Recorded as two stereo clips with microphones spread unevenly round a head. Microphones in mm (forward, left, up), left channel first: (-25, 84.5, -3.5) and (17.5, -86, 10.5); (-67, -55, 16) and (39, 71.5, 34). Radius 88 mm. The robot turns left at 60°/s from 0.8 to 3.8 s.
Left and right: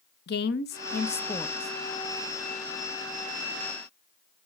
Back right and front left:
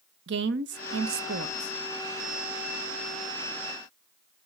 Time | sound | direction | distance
0.3 | a woman speaking | 65° left | 0.8 m